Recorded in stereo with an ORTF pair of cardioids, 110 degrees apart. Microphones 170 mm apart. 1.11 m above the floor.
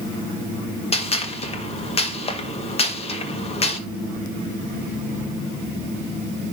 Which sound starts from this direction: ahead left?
A gunshot, at 0.9 s.